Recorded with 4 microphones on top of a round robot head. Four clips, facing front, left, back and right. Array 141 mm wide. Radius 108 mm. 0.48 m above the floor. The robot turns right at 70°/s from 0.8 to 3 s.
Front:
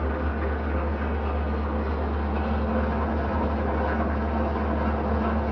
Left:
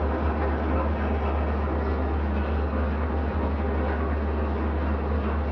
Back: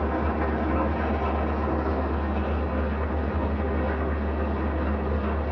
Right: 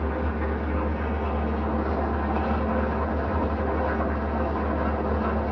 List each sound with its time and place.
0.0 s an engine running: 155° left, 1.6 m; by 5.5 s 50° right, 1.6 m